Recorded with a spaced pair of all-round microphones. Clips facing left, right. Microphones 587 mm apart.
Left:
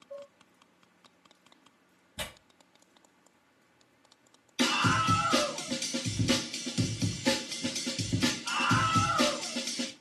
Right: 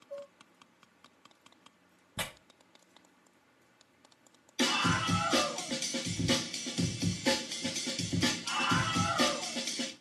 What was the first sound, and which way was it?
Dishes clattering, 10° right (ahead or behind).